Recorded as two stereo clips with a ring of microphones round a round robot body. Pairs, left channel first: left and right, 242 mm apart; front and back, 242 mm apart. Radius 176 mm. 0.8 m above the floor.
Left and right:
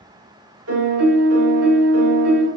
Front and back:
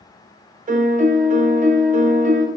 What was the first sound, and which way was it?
A piano, 120° right.